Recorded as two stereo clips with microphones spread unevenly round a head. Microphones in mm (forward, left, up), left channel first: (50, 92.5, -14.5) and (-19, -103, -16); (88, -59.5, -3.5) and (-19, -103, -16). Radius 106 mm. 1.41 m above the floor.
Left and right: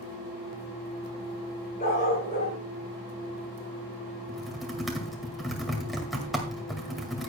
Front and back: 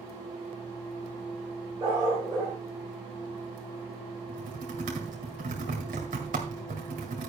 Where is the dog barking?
125° left, 6.5 m.